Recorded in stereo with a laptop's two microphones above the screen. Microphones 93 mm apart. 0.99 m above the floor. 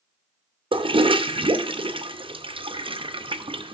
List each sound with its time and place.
0.7 s a toilet flushing: 70° right (ahead or behind), 0.5 m